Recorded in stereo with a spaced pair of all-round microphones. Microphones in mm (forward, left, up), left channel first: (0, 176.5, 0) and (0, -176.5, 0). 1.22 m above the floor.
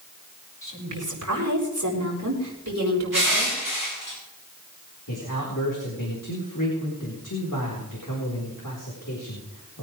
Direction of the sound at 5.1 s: 65° left (ahead or behind).